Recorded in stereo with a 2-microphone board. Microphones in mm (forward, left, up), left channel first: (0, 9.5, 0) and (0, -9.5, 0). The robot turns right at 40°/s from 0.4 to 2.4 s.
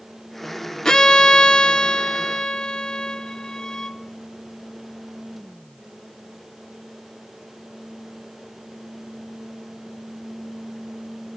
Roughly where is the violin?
Ahead left.